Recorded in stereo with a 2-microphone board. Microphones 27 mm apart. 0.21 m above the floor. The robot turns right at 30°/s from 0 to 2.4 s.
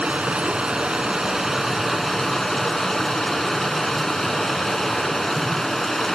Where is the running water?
60° right, 1.0 m; by 6.2 s 15° left, 1.0 m.